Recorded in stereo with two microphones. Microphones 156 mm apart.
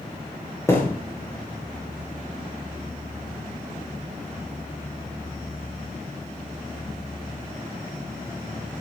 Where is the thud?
20° left (ahead or behind), 6 m.